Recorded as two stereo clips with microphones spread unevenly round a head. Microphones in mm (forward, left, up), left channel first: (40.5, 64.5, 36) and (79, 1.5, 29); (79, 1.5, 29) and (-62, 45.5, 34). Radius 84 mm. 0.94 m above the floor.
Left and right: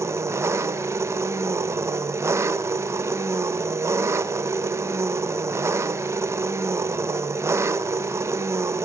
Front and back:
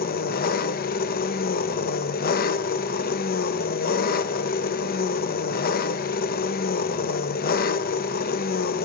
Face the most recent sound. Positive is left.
turn(degrees=-10)